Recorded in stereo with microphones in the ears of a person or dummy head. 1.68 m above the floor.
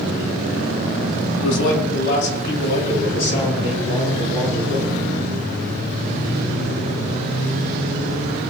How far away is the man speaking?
About 3.5 m.